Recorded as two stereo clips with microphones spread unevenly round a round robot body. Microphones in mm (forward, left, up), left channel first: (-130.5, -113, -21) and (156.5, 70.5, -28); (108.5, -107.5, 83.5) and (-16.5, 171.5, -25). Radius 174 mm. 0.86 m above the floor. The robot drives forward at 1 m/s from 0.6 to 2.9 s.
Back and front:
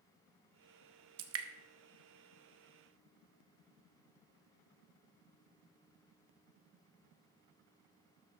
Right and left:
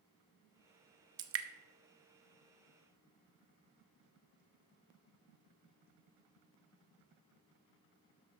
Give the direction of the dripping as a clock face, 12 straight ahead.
10 o'clock.